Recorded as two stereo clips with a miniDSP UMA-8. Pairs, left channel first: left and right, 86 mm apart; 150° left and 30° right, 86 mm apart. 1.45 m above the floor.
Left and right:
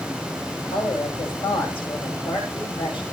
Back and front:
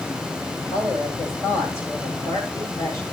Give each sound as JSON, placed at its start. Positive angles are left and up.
{"t": 0.6, "sound": "a woman speaking", "azimuth_deg": 90, "distance_m": 7.5}